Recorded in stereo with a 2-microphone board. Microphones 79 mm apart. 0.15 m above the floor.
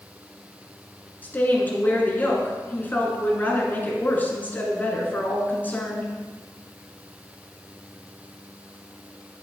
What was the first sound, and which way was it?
A woman speaking, 20° left (ahead or behind).